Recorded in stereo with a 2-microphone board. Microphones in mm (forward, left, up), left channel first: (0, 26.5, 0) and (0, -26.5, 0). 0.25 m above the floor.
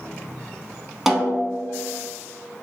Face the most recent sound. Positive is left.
turn(degrees=-5)  # may be behind; listen again after turning